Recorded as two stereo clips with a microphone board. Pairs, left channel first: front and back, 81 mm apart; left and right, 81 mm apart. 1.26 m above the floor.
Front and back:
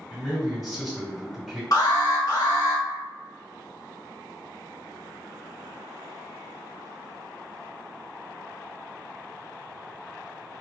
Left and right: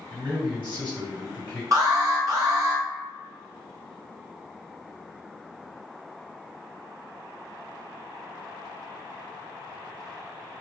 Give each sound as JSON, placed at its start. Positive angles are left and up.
{"t": 0.1, "sound": "a man speaking", "azimuth_deg": -95, "distance_m": 1.6}
{"t": 1.7, "sound": "an alarm", "azimuth_deg": -45, "distance_m": 0.9}